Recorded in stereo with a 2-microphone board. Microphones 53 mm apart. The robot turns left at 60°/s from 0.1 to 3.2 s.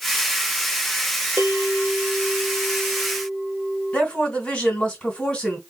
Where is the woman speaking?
20° left (ahead or behind), 3 m.